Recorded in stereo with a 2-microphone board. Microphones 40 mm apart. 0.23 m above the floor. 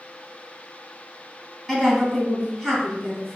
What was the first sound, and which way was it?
A woman speaking, centre (ahead or behind).